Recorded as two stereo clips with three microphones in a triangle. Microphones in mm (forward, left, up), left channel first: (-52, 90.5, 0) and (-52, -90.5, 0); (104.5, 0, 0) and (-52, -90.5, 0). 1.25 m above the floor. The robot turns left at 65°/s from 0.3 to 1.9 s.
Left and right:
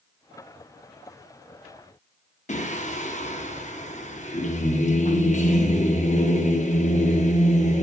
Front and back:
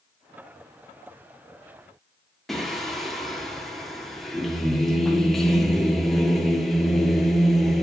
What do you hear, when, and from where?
2.5 s singing: 120° left, 1.0 m